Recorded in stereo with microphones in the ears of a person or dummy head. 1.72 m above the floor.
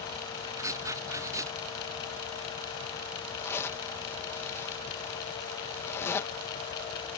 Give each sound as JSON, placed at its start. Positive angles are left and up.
{"t": 0.6, "sound": "writing", "side_deg": -15}
{"t": 3.4, "sound": "a zipper", "side_deg": 15}